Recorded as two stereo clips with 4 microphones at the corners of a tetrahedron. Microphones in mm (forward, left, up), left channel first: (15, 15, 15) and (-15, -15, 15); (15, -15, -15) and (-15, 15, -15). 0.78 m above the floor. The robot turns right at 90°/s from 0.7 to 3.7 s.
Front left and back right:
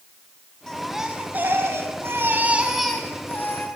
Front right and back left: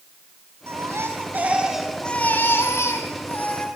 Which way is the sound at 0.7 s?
125° left.